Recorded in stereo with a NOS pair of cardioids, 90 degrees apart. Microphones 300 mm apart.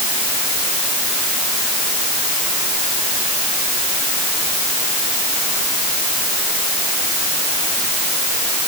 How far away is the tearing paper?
I don't hear tearing paper.